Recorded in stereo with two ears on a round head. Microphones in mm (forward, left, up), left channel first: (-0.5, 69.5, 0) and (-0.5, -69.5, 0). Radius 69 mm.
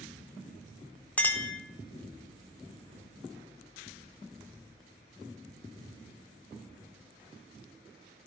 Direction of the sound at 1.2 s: 10° left (ahead or behind).